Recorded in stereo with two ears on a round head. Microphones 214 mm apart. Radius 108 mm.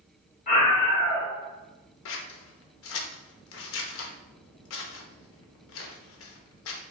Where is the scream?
35° left (ahead or behind), 1.7 m.